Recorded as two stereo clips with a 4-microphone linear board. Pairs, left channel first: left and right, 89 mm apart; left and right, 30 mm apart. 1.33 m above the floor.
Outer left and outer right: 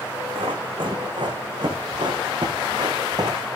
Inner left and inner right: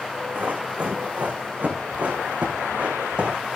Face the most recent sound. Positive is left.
turn(degrees=-45)  # may be behind; listen again after turning